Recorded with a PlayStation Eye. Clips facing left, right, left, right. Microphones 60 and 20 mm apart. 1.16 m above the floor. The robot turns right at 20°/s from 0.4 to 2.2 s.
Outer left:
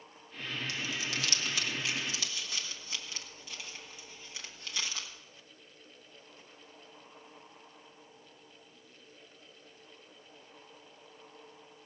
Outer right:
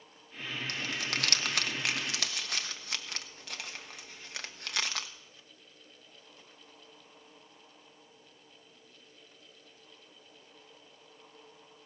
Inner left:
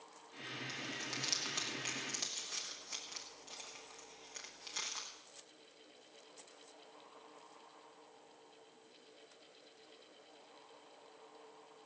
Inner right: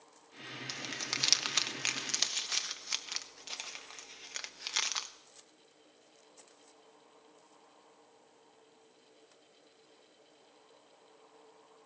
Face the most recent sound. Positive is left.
turn(degrees=-65)  # may be behind; listen again after turning